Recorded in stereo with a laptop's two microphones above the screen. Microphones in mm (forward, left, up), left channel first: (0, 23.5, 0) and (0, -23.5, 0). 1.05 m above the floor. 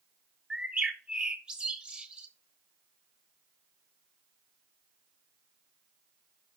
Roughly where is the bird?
Right.